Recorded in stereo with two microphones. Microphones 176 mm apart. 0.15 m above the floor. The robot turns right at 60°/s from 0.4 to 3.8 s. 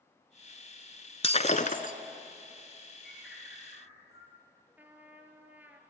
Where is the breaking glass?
50° left, 1.1 m; by 1.9 s 90° left, 1.1 m.